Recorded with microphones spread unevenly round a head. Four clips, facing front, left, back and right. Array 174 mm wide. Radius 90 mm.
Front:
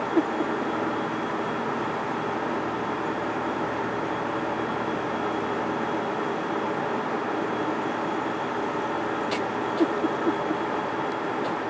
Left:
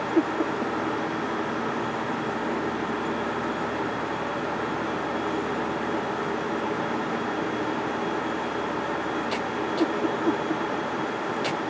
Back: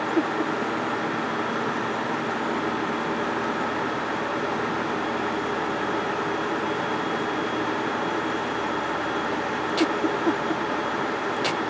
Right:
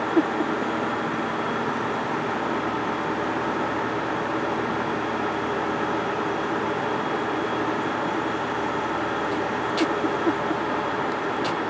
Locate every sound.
Only background noise.